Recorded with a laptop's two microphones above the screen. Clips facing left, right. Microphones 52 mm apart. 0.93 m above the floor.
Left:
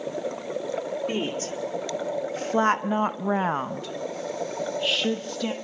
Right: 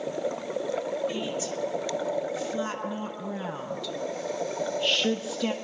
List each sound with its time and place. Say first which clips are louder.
1.1 s a woman speaking: left 2 dB; 50° left (ahead or behind), 2.5 m; by 5.5 s 5° right (ahead or behind), 1.8 m